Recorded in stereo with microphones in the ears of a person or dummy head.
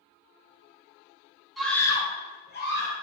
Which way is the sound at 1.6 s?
5° left (ahead or behind).